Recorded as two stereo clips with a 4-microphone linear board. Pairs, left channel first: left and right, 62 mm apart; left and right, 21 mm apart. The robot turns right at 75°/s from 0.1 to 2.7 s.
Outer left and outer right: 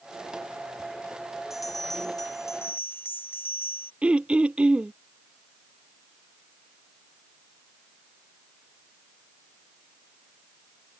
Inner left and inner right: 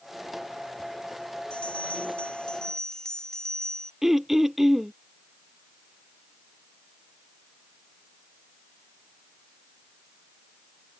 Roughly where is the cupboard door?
I don't hear a cupboard door.